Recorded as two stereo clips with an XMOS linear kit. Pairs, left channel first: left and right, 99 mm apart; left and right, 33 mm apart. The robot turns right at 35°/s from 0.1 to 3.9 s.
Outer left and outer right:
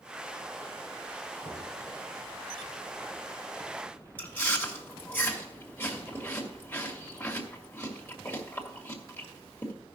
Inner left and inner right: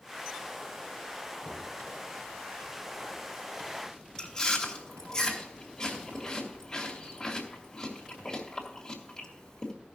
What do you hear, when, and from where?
1.4 s knocking: 85° right, 5 m; by 1.7 s 80° right, 5 m
4.2 s chewing: 20° left (ahead or behind), 2 m